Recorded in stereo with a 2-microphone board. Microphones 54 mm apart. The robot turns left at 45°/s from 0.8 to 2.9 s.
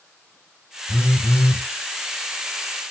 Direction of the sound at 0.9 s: 125° left.